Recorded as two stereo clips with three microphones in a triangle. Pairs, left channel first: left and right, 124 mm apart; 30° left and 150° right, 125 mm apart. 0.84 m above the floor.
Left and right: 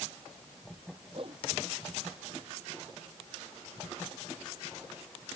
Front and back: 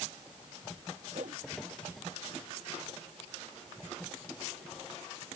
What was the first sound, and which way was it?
A whoosh, 135° right.